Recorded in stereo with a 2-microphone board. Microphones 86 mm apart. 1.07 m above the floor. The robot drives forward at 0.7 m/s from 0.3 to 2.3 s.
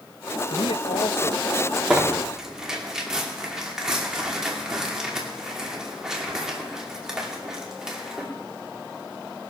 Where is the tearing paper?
5° right (ahead or behind), 2 m.